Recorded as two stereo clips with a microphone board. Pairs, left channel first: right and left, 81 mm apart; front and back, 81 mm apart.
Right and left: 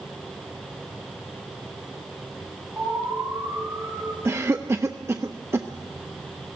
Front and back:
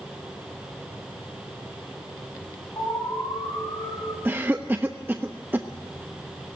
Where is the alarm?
35° left, 9 m.